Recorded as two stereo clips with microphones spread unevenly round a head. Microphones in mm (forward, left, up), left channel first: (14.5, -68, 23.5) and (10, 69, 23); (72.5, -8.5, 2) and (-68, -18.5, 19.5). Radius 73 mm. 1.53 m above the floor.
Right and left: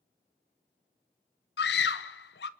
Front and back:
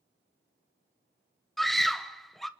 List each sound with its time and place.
1.6 s a scream: 85° right, 1.0 m